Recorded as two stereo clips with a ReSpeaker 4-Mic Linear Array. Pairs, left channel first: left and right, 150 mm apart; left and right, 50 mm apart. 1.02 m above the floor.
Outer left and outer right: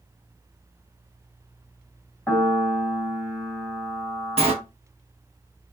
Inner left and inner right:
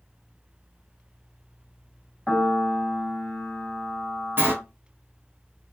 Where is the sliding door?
40° right (ahead or behind), 1.4 m.